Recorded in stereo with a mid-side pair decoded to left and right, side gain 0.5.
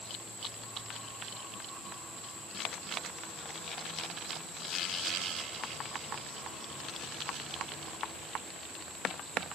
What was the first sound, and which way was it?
Only background noise.